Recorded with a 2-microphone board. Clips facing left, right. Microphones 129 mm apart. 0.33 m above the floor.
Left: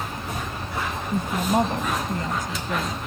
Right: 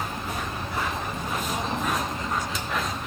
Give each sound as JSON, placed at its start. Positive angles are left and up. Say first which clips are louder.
{"t": 1.1, "sound": "a woman speaking", "louder": "left 7 dB", "side_deg": 60}